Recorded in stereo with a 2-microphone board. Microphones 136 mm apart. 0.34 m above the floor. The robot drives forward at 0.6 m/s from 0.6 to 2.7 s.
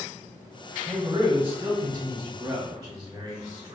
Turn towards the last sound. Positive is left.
turn(degrees=-15)  # may be behind; listen again after turning